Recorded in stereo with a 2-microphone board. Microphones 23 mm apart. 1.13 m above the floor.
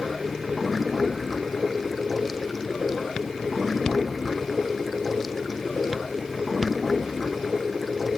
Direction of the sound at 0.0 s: Centre (ahead or behind).